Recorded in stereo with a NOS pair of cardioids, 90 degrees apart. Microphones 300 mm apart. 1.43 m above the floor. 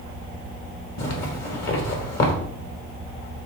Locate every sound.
1.0 s a zipper: 55° left, 2 m